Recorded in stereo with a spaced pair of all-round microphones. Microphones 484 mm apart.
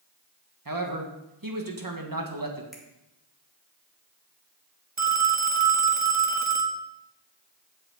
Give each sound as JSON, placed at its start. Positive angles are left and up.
{"t": 0.7, "sound": "a man speaking", "side_deg": -45, "distance_m": 1.6}
{"t": 2.7, "sound": "a finger snap", "side_deg": 0, "distance_m": 2.0}
{"t": 5.0, "sound": "a phone ringing", "side_deg": -35, "distance_m": 0.8}